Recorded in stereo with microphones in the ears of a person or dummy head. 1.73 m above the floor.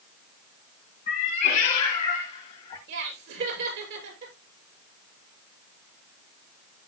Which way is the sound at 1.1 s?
35° left (ahead or behind).